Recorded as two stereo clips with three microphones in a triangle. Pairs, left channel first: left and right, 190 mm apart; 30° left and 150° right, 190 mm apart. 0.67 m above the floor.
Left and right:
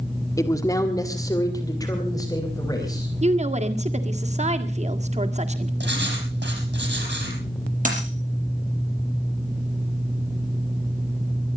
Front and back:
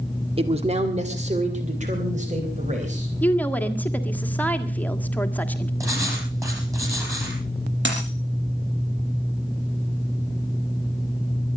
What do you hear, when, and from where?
0.4 s a man speaking: 160° left, 1.3 m
3.2 s a woman speaking: 50° right, 1.7 m
5.8 s writing: 75° right, 5.5 m
7.8 s a dropped coin: 135° right, 6 m